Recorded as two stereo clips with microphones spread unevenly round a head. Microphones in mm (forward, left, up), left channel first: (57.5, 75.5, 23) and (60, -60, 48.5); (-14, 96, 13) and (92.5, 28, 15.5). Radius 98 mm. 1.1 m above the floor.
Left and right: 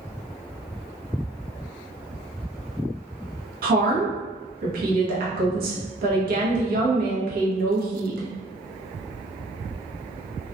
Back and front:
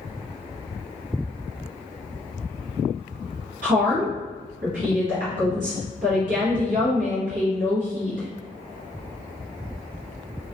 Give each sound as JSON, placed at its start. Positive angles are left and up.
{"t": 3.6, "sound": "a woman speaking", "azimuth_deg": -75, "distance_m": 1.0}